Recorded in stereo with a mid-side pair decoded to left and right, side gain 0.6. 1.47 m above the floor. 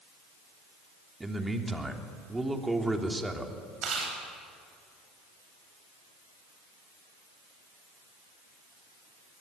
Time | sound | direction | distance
1.2 | a man speaking | 10° right | 3 m
3.8 | chewing | 50° right | 9.5 m